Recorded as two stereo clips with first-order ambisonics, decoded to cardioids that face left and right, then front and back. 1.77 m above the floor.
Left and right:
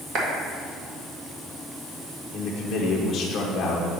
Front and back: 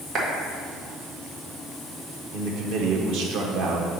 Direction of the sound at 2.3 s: 160° left.